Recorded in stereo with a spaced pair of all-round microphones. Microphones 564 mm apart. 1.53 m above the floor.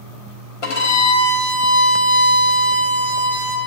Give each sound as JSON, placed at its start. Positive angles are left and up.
{"t": 0.6, "sound": "a violin", "side_deg": 65, "distance_m": 1.0}